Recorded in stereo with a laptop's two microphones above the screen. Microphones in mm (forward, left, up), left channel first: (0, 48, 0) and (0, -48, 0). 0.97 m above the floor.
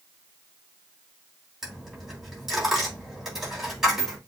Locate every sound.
1.6 s a dropped coin: 5° right (ahead or behind), 3.5 m